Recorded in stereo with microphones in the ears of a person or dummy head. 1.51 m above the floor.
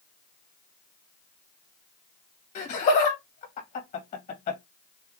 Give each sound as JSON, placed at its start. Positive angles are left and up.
{"t": 2.5, "sound": "laughter", "side_deg": 50, "distance_m": 1.7}